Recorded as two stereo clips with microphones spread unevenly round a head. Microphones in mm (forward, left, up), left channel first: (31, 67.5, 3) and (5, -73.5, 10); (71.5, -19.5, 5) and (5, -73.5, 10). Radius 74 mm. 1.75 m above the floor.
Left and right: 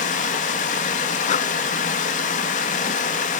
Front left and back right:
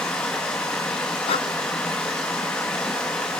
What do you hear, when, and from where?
0.0 s running water: 125° left, 2 m
1.3 s breathing: 40° left, 0.6 m